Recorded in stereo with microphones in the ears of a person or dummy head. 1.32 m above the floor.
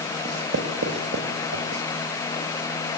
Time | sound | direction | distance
0.2 | writing | 70° right (ahead or behind) | 3 m